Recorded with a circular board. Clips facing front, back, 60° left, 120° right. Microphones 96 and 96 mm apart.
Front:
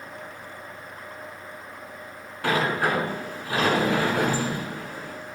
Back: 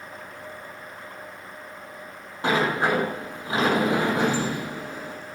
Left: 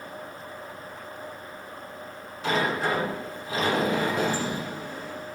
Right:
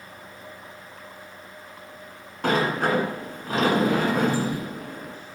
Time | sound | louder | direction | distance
2.4 | a sliding door | back 1 dB, right 3 dB | 115° right | 1.3 m